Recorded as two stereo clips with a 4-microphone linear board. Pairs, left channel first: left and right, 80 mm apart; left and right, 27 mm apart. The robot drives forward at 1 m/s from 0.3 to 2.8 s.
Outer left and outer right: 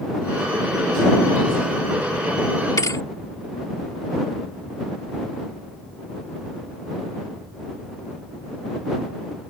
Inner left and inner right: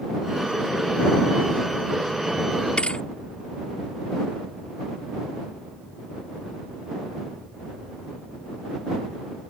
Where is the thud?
45° left (ahead or behind).